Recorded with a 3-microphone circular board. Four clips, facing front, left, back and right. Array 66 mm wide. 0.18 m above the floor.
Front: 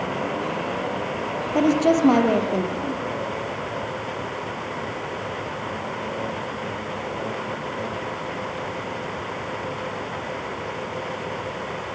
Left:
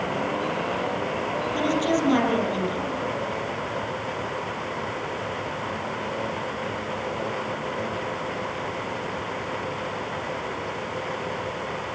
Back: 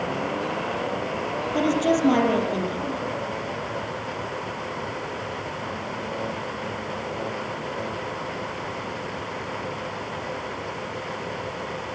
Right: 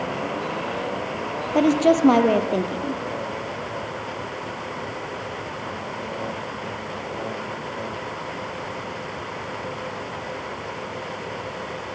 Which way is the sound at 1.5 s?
65° right.